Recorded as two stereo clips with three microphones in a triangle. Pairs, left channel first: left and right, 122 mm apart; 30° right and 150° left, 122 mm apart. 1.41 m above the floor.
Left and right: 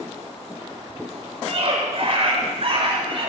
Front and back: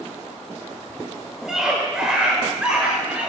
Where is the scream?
125° right, 5.5 m; by 3.3 s 130° right, 7 m.